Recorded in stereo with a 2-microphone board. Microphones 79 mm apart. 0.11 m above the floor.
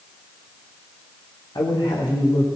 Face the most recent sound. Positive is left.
turn(degrees=60)  # may be behind; listen again after turning